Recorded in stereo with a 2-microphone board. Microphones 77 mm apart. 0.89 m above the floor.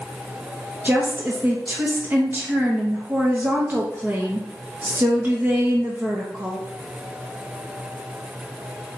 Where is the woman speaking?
25° right (ahead or behind), 0.8 m.